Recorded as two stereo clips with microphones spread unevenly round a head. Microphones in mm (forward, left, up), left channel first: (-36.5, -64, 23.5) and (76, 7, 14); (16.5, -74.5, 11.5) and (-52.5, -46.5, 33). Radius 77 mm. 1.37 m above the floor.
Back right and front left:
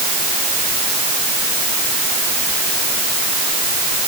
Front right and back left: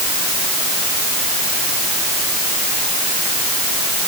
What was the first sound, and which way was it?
Only background noise.